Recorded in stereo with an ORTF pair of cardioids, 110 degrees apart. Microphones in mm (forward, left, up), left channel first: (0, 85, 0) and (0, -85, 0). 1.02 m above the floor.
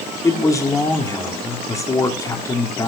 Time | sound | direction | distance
0.2 | a man speaking | 15° left | 3 m